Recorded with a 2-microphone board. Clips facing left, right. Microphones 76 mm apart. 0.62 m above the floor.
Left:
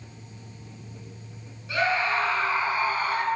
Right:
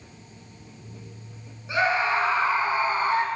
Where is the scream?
20° right (ahead or behind), 7.5 m; by 3.3 s 30° right (ahead or behind), 5.5 m.